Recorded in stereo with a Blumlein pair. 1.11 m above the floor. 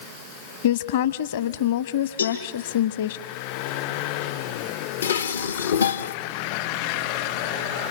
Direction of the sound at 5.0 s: 65° left.